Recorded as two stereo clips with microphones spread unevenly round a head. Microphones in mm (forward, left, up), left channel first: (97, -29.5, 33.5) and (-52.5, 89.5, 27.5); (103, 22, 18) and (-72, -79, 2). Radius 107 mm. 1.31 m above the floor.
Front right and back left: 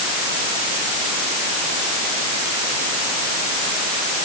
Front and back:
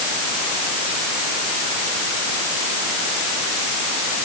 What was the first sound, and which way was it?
Only background noise.